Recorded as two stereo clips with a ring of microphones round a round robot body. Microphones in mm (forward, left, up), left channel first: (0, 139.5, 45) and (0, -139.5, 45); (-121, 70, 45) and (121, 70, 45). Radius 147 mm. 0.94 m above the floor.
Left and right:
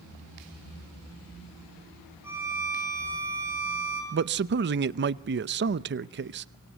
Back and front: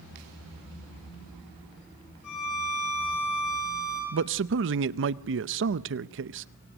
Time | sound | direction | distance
2.2 | a violin | 170° right | 7.5 m
4.1 | a man speaking | 40° right | 0.7 m